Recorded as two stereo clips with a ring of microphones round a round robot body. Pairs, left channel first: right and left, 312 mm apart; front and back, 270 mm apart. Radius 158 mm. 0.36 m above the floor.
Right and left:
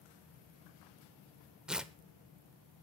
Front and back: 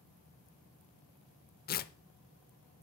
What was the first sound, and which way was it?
Tearing paper, 5° left.